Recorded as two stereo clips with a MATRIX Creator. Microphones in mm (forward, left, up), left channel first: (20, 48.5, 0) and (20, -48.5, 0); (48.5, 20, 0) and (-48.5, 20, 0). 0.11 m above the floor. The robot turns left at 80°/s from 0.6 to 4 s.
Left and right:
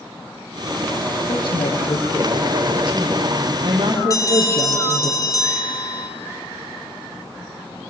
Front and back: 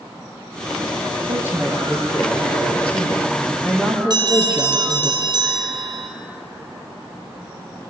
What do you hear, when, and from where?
1.3 s a woman speaking: 135° left, 4 m; by 5.1 s 85° right, 4 m
4.1 s a bell: 140° left, 3 m